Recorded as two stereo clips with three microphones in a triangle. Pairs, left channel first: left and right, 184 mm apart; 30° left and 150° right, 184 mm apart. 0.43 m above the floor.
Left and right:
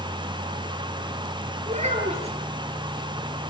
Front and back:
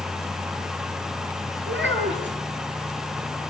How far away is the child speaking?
About 5.5 m.